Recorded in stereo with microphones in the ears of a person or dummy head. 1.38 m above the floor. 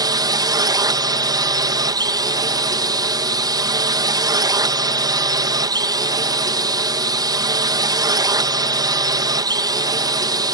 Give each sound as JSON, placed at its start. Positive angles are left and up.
{"t": 0.0, "sound": "a drone", "side_deg": -15}